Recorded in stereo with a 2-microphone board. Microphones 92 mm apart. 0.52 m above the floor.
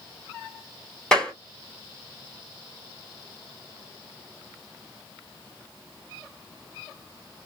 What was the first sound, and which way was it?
A clap, 10° left (ahead or behind).